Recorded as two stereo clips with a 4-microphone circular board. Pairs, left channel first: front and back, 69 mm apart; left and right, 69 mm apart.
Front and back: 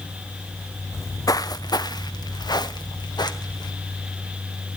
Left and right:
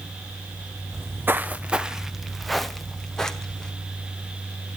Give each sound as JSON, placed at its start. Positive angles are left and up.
{"t": 0.9, "sound": "footsteps", "azimuth_deg": -45, "distance_m": 0.6}